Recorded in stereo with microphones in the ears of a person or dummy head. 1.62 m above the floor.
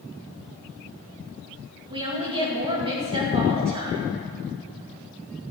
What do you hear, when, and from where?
1.9 s a woman speaking: 30° right (ahead or behind), 2.5 m